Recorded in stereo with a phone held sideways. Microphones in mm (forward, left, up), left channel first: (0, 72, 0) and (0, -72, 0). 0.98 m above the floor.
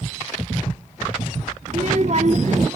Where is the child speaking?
55° right (ahead or behind), 1.1 m.